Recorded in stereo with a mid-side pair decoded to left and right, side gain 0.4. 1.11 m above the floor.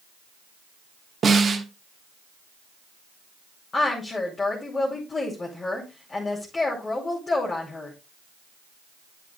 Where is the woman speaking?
35° left, 2.5 m.